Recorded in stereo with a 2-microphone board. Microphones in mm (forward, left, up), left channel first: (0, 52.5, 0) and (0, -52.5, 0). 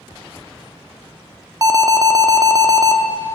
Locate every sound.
1.6 s an alarm: 35° right (ahead or behind), 0.6 m